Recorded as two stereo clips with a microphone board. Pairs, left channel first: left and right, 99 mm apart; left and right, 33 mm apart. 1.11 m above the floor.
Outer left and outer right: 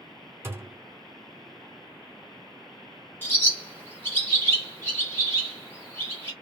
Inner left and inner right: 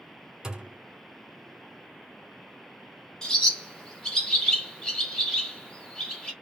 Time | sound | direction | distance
0.4 | a thud | 25° right (ahead or behind) | 0.8 m
3.2 | a bird | 20° left (ahead or behind) | 1.5 m